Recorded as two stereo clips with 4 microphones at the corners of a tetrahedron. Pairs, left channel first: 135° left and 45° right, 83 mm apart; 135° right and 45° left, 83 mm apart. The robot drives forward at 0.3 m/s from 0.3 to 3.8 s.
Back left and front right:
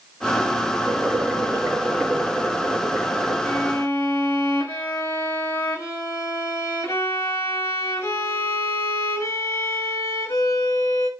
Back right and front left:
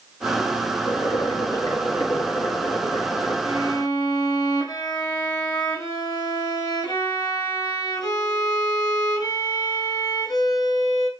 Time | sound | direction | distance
0.8 | boiling | 115° right | 1.0 m
3.4 | a violin | 165° right | 0.8 m